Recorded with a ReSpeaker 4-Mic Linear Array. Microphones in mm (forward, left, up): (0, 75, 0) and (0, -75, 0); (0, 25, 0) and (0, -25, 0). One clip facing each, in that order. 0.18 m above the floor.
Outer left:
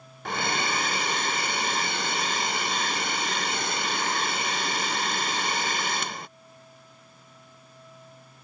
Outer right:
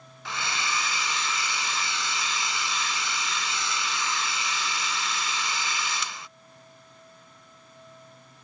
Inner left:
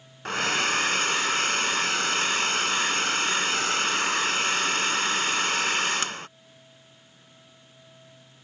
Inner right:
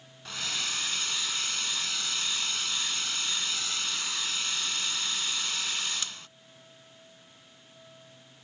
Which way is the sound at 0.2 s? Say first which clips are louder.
Outer left 4 dB, inner left 10 dB; 55° left (ahead or behind).